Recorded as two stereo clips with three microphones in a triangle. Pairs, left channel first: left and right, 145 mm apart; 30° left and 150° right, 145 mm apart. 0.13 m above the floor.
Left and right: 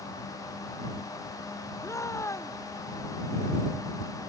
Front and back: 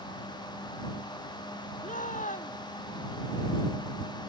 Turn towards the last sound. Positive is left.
turn(degrees=25)